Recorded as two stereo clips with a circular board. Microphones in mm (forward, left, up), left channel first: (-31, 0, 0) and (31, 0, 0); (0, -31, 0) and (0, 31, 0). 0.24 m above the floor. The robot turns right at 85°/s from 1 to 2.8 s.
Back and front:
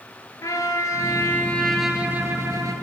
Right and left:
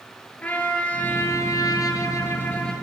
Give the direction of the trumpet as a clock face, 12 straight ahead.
5 o'clock.